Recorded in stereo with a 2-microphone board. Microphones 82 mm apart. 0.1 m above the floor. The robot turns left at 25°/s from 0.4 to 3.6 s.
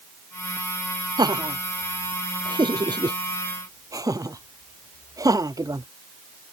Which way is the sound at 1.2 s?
55° right (ahead or behind).